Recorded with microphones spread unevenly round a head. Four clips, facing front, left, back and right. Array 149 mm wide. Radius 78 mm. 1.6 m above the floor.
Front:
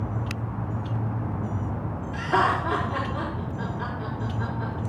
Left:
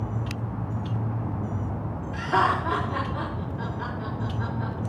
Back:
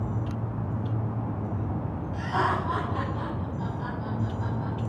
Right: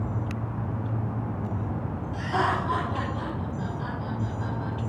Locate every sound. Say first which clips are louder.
2.1 s laughter: left 3 dB, front 4 dB; 30° left, 5 m